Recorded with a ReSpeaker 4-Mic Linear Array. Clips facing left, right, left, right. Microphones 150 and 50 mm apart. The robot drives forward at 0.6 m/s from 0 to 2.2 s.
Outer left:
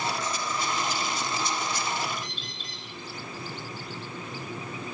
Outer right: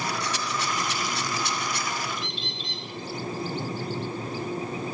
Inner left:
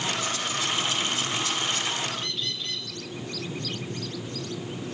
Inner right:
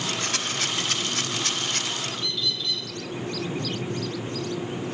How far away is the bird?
About 5 m.